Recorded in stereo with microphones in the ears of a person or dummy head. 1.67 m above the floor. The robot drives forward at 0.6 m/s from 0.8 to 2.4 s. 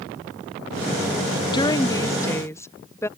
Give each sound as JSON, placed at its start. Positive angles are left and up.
{"t": 1.5, "sound": "a woman speaking", "side_deg": 20}